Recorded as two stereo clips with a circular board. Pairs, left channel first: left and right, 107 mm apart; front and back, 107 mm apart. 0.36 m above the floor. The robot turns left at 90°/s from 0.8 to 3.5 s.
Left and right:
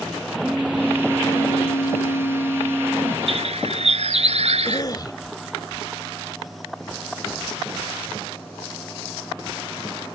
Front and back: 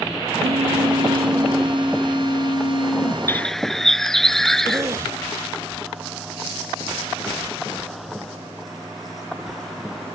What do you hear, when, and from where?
0.4 s a phone buzzing: 165° right; by 3.3 s 30° right
3.3 s a bird: 65° right; by 4.8 s 85° right
4.7 s a cough: 130° left